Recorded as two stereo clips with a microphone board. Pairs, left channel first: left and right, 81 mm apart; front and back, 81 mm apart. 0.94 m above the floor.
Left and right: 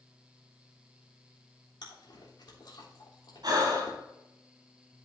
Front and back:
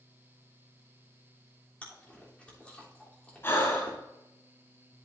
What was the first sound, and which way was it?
Chewing, 75° left.